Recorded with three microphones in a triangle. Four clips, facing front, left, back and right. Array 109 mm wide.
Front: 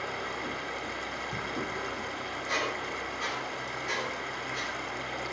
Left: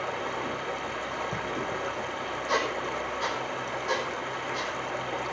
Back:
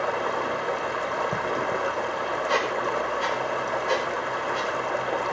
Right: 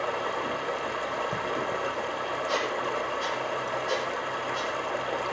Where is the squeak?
130° left, 5 m.